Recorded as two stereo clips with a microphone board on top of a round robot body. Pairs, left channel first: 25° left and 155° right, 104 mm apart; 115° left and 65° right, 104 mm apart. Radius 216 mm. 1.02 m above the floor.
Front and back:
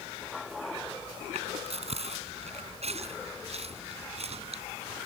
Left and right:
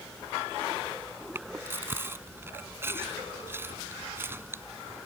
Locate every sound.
1.4 s chewing: 135° right